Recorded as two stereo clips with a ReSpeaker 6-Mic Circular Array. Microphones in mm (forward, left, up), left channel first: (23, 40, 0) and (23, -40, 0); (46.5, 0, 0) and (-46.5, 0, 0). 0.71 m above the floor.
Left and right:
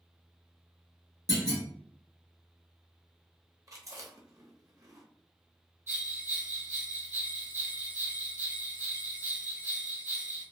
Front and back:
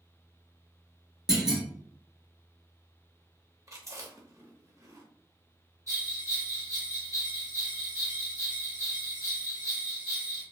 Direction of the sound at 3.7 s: 130° right.